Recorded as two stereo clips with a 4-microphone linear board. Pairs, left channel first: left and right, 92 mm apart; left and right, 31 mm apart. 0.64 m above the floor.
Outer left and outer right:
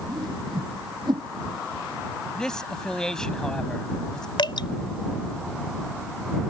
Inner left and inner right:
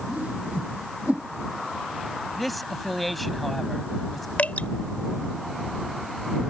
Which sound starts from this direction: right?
A whoosh, at 0.1 s.